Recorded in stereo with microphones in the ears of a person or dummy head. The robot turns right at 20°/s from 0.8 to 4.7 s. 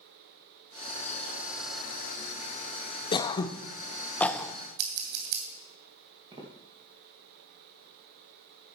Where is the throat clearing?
30° left (ahead or behind), 0.6 m; by 4.5 s 5° left (ahead or behind), 0.6 m.